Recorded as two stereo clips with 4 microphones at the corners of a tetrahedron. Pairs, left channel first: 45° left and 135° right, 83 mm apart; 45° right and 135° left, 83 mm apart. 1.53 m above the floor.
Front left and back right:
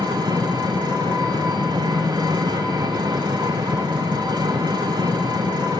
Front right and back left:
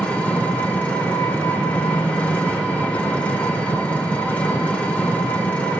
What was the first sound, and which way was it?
An engine running, 120° right.